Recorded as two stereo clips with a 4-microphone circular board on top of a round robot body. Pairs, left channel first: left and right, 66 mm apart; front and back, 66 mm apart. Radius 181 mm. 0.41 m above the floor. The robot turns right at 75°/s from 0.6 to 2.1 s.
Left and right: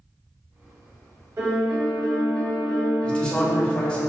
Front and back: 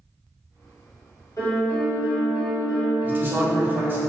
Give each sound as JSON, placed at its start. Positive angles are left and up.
{"t": 1.4, "sound": "a piano", "azimuth_deg": -40, "distance_m": 1.3}
{"t": 3.0, "sound": "a man speaking", "azimuth_deg": 150, "distance_m": 1.1}